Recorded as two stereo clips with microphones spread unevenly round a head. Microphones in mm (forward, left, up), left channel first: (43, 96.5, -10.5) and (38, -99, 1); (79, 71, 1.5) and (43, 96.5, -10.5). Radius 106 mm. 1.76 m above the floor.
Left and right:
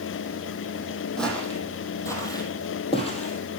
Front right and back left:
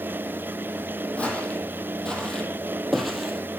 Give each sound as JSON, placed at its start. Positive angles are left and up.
{"t": 1.2, "sound": "footsteps", "azimuth_deg": 0, "distance_m": 3.0}